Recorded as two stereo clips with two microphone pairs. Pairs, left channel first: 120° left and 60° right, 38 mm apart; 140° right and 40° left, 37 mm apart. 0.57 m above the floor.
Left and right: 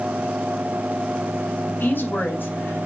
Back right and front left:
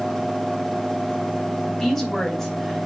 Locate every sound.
1.6 s a woman speaking: 145° left, 4.5 m